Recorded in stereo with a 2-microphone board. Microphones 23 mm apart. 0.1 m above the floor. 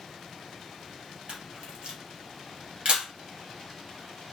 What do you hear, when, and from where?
1.3 s a camera shutter: 45° right (ahead or behind), 1.7 m